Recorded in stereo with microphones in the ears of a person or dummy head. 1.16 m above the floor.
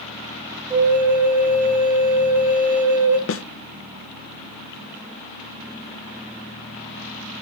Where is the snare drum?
65° left (ahead or behind), 0.7 m.